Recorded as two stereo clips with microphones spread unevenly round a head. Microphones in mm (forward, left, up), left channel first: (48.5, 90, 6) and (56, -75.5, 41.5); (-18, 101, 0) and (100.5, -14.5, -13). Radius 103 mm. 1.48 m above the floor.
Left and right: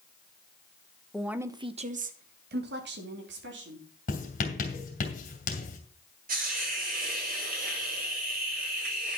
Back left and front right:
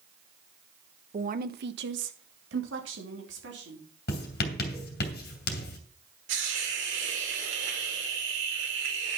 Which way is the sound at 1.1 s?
5° left.